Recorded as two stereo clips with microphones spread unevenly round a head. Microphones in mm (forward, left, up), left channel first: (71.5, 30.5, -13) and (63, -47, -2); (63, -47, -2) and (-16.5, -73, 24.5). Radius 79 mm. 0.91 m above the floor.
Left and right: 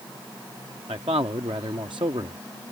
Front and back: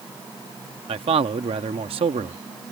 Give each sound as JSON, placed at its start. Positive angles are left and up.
{"t": 0.9, "sound": "a man speaking", "azimuth_deg": -155}